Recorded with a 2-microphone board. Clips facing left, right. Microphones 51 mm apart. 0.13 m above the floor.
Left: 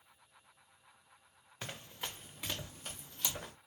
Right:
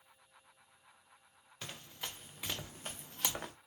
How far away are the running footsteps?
About 1.0 m.